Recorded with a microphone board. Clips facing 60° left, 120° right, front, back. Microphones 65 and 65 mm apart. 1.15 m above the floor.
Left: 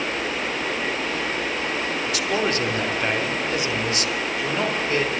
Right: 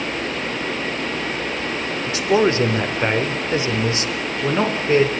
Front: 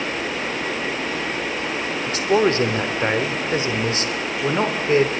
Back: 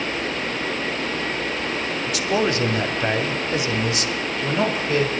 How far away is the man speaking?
About 3.5 m.